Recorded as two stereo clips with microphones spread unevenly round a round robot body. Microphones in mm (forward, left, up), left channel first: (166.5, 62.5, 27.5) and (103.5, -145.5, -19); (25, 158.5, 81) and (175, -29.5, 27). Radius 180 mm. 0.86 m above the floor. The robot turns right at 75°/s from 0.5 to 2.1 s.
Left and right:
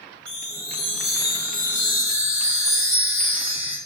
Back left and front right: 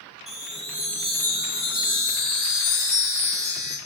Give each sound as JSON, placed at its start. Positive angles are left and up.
{"t": 0.3, "sound": "a chime", "azimuth_deg": 15, "distance_m": 2.0}